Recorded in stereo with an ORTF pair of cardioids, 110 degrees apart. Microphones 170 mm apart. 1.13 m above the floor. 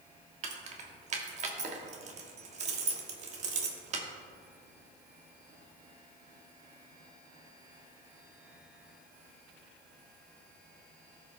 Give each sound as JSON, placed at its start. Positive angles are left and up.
{"t": 0.4, "sound": "keys jangling", "azimuth_deg": -45, "distance_m": 1.4}